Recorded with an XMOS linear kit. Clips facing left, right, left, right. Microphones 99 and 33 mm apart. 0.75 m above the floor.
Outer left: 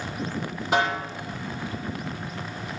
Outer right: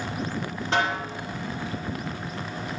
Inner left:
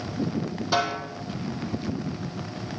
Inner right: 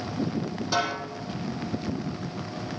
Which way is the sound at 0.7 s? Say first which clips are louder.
Outer left 2 dB, inner left 2 dB; 10° left (ahead or behind).